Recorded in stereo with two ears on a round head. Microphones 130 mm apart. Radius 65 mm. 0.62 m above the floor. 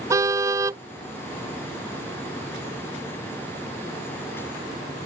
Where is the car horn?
20° right (ahead or behind).